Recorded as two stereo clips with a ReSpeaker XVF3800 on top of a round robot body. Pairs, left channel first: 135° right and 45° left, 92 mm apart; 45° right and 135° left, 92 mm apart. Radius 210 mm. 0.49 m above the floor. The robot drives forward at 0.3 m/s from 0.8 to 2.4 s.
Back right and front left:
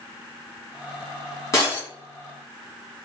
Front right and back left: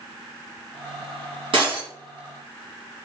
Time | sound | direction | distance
1.5 | breaking glass | 165° left | 2 m